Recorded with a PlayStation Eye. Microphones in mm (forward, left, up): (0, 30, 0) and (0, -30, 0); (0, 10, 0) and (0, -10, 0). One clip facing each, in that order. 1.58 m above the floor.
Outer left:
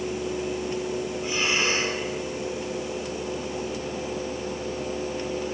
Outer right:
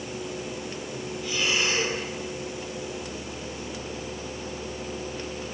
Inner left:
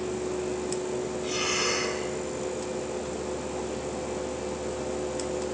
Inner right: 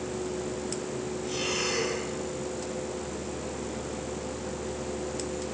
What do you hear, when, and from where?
1.2 s breathing: 30° left (ahead or behind), 10 m